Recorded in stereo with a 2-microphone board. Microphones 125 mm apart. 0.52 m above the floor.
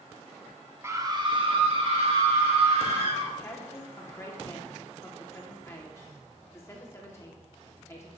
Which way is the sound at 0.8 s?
20° right (ahead or behind).